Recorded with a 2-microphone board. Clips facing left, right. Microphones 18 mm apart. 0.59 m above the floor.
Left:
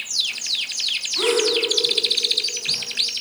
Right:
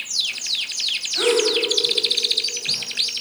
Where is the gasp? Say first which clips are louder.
Right 1 dB; 65° right (ahead or behind), 4 m.